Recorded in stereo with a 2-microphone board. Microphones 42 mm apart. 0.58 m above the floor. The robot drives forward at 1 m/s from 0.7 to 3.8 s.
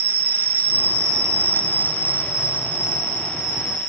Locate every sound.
0.0 s an insect: 55° right (ahead or behind), 0.8 m; by 3.9 s 15° right (ahead or behind), 2.5 m